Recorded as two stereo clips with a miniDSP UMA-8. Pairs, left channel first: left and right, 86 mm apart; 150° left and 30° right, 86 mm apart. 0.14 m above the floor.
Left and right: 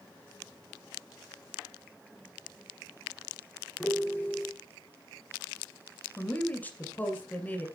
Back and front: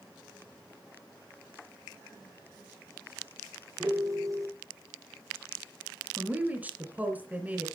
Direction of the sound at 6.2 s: 30° left.